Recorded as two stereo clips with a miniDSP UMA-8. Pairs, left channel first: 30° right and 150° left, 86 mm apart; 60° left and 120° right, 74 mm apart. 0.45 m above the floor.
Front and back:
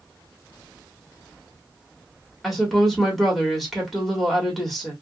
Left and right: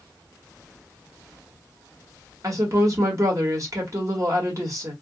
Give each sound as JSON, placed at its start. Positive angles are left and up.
{"t": 2.4, "sound": "a woman speaking", "azimuth_deg": -120, "distance_m": 1.7}